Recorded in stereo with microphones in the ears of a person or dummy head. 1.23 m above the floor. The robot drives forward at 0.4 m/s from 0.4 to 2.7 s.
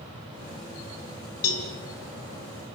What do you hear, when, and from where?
1.4 s a cowbell: 80° left, 5 m